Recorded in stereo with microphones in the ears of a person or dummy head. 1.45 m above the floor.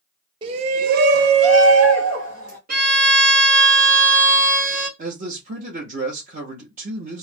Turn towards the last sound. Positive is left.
turn(degrees=-45)  # may be behind; listen again after turning